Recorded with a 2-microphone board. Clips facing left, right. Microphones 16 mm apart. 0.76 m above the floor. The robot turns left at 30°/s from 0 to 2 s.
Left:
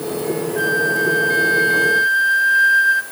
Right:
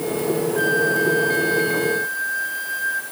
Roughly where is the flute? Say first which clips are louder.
Left 2 dB; behind.